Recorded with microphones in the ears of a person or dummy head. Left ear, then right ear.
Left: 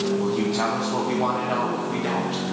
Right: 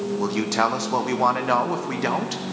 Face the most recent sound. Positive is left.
turn(degrees=-70)  # may be behind; listen again after turning